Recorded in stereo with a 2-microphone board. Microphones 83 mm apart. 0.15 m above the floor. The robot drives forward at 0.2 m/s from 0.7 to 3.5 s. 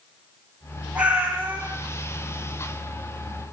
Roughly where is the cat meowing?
Centre.